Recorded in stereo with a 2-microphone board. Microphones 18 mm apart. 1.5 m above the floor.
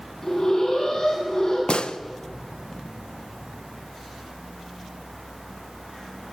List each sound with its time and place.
0.2 s an alarm: 30° left (ahead or behind), 10 m
1.7 s a gunshot: 75° left (ahead or behind), 1.2 m